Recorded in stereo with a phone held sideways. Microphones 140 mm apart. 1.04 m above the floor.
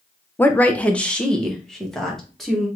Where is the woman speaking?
10° left (ahead or behind), 0.6 m; by 2.7 s centre (ahead or behind), 1.6 m.